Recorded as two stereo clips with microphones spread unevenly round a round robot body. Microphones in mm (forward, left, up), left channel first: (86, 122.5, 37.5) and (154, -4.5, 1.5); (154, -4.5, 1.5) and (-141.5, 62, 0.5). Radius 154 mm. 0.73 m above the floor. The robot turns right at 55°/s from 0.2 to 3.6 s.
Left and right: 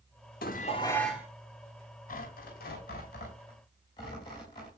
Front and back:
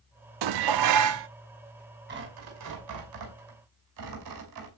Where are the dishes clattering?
170° left, 0.7 m; by 1.3 s 140° right, 0.7 m.